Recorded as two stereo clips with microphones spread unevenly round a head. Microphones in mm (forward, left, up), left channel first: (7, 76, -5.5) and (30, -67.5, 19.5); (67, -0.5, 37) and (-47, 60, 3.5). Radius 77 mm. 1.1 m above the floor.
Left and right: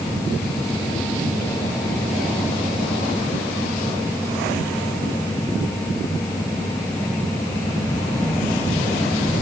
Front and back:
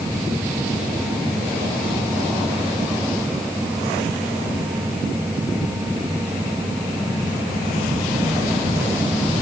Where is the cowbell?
I don't hear a cowbell.